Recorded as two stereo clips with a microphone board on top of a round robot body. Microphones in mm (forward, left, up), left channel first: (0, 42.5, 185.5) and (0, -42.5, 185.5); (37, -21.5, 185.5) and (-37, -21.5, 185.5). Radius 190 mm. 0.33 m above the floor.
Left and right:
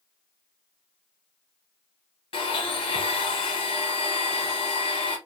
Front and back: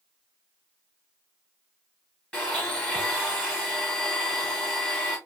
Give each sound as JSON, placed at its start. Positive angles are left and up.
{"t": 2.3, "sound": "a blender", "azimuth_deg": 80, "distance_m": 0.6}